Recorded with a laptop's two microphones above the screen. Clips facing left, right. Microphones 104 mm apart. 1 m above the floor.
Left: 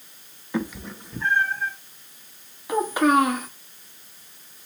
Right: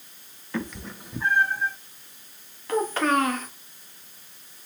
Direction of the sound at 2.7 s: 15° left (ahead or behind).